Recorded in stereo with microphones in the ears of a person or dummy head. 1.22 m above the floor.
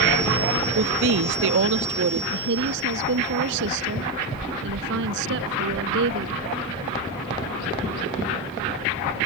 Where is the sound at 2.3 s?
65° right (ahead or behind).